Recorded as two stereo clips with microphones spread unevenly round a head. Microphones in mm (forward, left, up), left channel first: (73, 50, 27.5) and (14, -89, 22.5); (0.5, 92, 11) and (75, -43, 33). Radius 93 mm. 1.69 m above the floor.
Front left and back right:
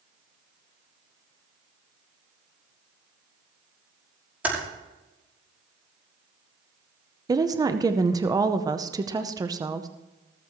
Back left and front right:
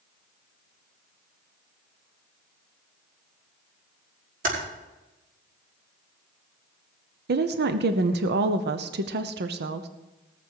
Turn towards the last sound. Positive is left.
turn(degrees=-45)